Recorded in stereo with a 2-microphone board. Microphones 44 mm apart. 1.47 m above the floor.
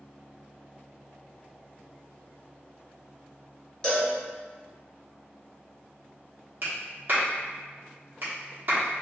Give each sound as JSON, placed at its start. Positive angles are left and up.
{"t": 3.8, "sound": "a cowbell", "side_deg": 15, "distance_m": 1.2}
{"t": 6.6, "sound": "a clap", "side_deg": -50, "distance_m": 1.4}